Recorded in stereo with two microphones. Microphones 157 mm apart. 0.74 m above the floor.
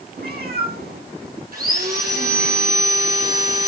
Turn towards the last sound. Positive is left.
turn(degrees=-70)  # may be behind; listen again after turning